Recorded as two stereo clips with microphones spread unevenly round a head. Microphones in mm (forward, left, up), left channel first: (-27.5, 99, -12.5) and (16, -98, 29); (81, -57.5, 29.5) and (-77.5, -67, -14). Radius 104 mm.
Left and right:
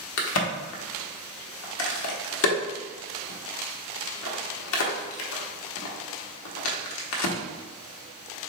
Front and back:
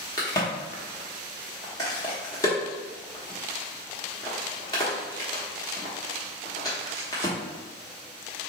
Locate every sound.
0.2 s a crack: 75° left, 0.9 m